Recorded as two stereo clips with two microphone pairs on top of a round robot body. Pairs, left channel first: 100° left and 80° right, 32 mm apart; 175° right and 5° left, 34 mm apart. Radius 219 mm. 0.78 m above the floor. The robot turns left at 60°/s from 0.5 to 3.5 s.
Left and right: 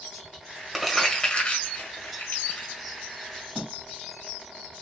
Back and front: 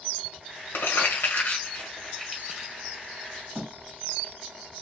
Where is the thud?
5° right, 3 m.